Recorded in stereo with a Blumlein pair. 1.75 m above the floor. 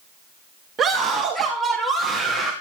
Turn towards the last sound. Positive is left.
turn(degrees=0)